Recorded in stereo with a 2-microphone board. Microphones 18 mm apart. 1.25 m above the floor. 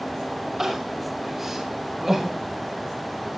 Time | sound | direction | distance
0.6 | crying | 20° right (ahead or behind) | 5.5 m